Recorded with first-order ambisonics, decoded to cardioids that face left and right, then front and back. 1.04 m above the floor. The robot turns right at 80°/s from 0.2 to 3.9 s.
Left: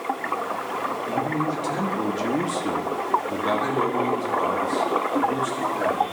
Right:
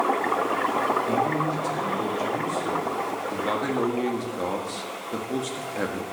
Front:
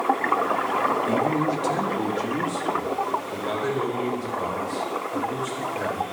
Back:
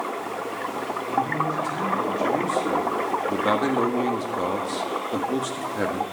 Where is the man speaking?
15° right, 1.5 m; by 6.0 s 150° right, 1.5 m.